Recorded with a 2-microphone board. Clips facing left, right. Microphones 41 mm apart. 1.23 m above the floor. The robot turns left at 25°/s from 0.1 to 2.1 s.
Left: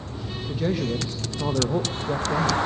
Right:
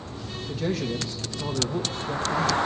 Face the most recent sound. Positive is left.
turn(degrees=135)